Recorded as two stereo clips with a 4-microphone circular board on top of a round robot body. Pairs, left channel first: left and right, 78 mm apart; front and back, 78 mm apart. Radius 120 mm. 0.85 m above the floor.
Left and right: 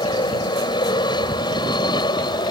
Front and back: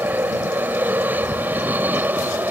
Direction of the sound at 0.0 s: 110° left.